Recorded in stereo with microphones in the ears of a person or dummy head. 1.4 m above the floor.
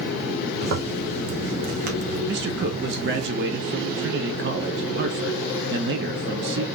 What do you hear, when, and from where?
0.6 s a zipper: 45° right (ahead or behind), 1.0 m
2.3 s a man speaking: 50° right (ahead or behind), 0.7 m